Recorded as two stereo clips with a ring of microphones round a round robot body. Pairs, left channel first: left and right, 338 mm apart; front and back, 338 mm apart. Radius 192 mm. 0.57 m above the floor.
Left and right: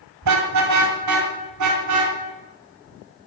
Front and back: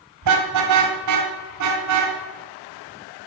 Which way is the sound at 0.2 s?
135° right.